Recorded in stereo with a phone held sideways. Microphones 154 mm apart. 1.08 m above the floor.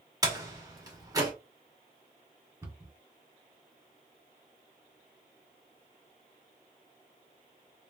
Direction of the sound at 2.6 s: 20° right (ahead or behind).